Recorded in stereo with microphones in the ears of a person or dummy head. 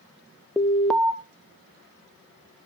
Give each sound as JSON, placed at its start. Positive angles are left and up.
{"t": 0.6, "sound": "an alarm", "side_deg": 10, "distance_m": 0.6}